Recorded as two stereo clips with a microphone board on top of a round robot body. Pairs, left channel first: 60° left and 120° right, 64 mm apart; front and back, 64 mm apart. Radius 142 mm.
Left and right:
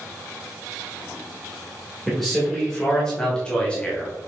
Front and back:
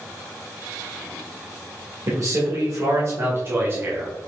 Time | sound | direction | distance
2.1 | a man speaking | 145° left | 3 m